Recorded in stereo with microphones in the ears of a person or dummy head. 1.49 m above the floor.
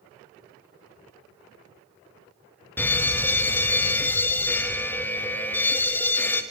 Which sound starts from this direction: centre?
A fire alarm, at 2.8 s.